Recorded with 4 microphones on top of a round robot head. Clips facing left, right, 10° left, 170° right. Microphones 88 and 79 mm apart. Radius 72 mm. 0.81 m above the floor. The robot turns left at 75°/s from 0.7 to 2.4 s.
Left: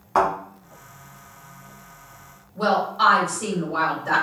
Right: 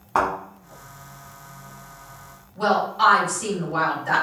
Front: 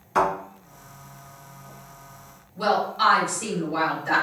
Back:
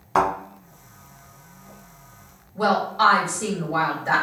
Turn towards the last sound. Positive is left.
turn(degrees=140)